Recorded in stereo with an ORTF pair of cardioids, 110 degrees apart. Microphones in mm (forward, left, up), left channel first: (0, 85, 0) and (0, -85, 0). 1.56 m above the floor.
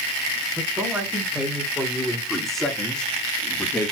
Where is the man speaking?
10° right, 4.5 m; by 3.9 s 10° left, 3 m.